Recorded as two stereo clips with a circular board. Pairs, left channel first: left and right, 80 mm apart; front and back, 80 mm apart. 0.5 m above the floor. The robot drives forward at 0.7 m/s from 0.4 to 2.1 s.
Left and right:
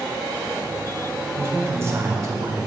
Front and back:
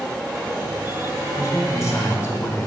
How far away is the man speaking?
About 1.6 m.